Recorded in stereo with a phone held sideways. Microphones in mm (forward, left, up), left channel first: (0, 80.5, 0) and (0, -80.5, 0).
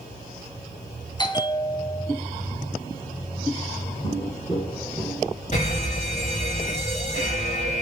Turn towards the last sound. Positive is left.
turn(degrees=45)  # may be behind; listen again after turning